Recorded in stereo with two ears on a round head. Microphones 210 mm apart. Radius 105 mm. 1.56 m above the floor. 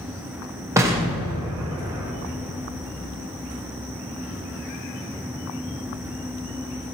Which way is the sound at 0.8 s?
10° right (ahead or behind).